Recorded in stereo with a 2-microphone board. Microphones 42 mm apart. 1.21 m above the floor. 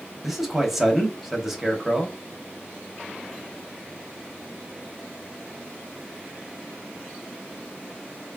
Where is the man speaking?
5° right (ahead or behind), 0.7 m.